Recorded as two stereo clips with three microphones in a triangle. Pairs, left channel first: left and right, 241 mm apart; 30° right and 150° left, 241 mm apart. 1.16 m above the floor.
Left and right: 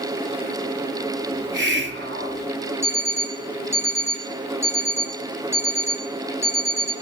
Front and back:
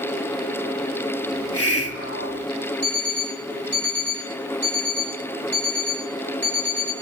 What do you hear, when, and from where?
1.3 s a hiss: 50° right, 1.4 m
2.8 s an alarm clock: 170° right, 3.5 m